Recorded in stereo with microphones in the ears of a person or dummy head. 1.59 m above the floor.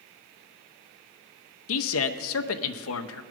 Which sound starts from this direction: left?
A man speaking, at 1.7 s.